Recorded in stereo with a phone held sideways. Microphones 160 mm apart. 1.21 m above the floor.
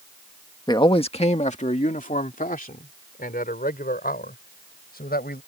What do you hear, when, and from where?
0.7 s a man speaking: 25° left (ahead or behind); by 5.4 s 65° left (ahead or behind)